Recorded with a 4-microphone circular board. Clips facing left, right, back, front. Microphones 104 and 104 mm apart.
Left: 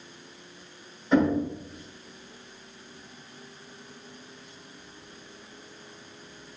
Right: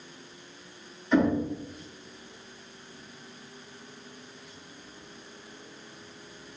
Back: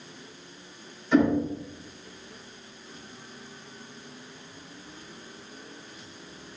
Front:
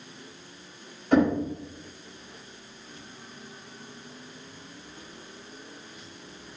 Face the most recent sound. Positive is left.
turn(degrees=35)